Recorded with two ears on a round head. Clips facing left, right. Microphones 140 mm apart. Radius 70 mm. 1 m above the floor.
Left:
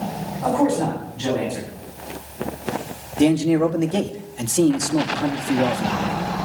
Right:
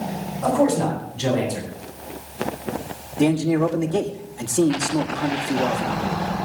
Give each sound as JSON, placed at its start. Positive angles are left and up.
{"t": 0.4, "sound": "a man speaking", "side_deg": -30, "distance_m": 7.5}
{"t": 3.2, "sound": "a man speaking", "side_deg": 25, "distance_m": 1.7}